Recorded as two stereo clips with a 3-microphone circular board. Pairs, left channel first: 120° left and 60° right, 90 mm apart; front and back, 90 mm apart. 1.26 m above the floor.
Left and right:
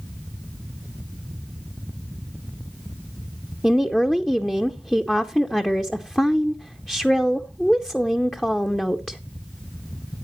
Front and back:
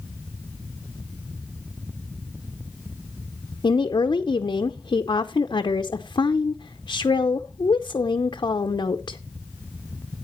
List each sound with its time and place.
3.6 s a woman speaking: 40° left, 0.6 m